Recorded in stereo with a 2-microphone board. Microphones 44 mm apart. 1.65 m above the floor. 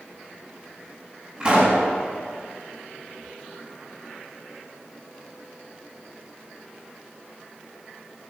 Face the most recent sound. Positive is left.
turn(degrees=-20)  # may be behind; listen again after turning